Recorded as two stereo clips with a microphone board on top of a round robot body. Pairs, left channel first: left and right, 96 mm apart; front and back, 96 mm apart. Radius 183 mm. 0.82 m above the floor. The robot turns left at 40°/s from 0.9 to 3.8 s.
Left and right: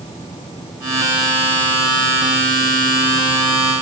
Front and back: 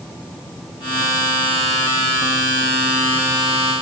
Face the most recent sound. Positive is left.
No sound to turn to.